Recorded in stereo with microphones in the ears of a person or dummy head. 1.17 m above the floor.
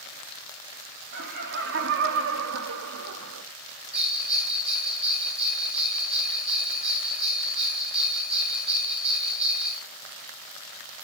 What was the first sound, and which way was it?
Laughter, 55° right (ahead or behind).